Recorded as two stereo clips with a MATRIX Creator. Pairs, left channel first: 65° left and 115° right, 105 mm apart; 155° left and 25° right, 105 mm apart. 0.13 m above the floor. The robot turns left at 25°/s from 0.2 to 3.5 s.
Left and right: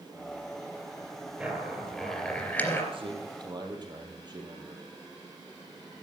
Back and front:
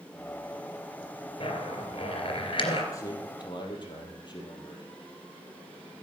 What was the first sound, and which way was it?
A zipper, 170° left.